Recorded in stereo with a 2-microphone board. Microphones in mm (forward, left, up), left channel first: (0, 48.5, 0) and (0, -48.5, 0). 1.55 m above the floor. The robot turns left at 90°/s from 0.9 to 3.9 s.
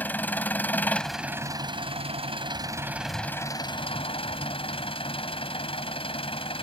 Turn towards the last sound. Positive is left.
turn(degrees=110)